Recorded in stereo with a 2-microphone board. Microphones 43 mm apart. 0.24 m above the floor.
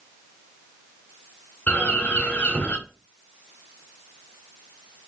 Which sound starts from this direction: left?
A bird, at 1.7 s.